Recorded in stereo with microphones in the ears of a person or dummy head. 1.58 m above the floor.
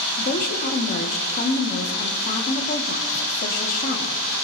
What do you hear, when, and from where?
0.2 s a woman speaking: 40° left (ahead or behind), 1.8 m